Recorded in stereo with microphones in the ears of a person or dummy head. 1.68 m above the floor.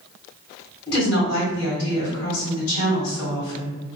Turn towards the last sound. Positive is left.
turn(degrees=75)  # may be behind; listen again after turning